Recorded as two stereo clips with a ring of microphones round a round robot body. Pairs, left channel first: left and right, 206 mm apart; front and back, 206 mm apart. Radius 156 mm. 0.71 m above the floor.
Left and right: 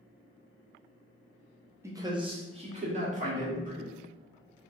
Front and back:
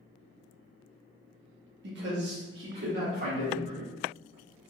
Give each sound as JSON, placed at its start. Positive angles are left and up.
{"t": 1.8, "sound": "a man speaking", "azimuth_deg": -165, "distance_m": 0.8}